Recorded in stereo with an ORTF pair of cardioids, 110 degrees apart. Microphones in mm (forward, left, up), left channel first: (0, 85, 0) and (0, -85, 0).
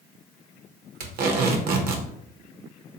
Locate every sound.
1.0 s tape being pulled: 65° right, 0.8 m